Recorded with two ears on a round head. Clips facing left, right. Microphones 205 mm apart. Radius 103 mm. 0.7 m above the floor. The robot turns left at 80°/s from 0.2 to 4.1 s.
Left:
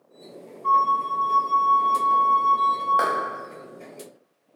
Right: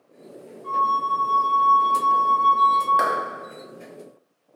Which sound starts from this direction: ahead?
A flute, at 0.6 s.